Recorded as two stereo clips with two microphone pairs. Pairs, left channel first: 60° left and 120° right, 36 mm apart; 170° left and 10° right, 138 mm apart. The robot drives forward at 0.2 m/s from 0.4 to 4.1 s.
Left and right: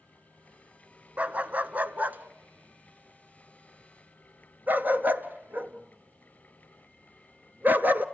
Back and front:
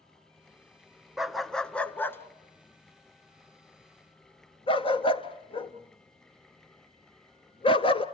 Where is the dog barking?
100° right, 0.6 m; by 8.1 s 145° right, 0.9 m.